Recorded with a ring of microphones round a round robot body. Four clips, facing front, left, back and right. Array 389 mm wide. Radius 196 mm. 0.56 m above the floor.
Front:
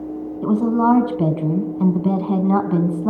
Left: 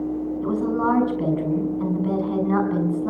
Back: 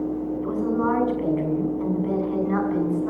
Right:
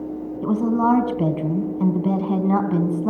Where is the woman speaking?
25° right, 4.5 m.